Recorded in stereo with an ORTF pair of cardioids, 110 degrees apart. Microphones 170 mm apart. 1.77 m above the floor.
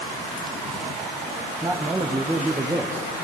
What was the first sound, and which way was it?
A man speaking, 15° right.